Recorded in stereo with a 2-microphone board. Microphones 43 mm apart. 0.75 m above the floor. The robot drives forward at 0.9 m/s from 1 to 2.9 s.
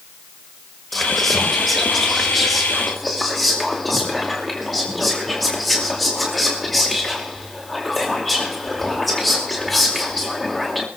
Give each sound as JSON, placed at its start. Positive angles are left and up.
{"t": 0.9, "sound": "whispering", "side_deg": 0, "distance_m": 1.0}